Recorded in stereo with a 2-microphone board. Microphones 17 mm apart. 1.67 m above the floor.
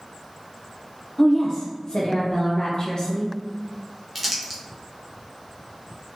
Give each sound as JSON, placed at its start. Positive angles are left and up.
{"t": 1.2, "sound": "a woman speaking", "side_deg": 30, "distance_m": 0.7}
{"t": 4.2, "sound": "crumpling", "side_deg": -5, "distance_m": 1.0}